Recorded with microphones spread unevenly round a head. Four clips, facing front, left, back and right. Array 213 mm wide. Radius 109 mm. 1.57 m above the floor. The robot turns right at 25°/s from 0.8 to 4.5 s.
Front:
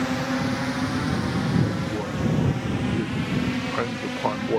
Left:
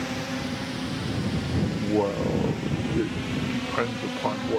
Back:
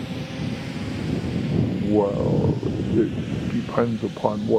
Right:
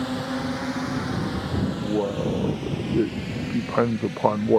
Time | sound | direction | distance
0.0 | a drone | 10° right | ?
1.7 | a man speaking | straight behind | ?